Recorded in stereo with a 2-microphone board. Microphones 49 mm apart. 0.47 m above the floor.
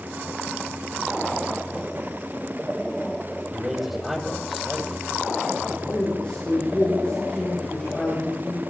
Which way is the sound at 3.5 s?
5° right (ahead or behind).